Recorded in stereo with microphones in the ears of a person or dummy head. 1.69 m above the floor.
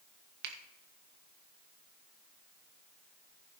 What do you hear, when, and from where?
0.4 s a finger snap: 60° right (ahead or behind), 1.3 m